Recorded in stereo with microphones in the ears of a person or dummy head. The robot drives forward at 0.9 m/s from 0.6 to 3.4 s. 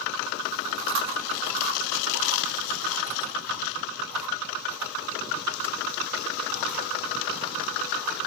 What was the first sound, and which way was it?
Chewing, 65° right (ahead or behind).